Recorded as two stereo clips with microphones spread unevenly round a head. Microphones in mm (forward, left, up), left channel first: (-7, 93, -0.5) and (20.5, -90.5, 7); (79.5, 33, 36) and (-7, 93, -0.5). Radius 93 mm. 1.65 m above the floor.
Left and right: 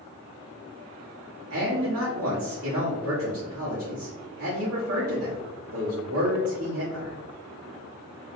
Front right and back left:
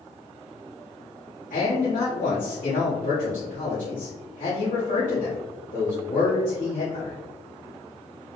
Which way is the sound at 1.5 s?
70° right.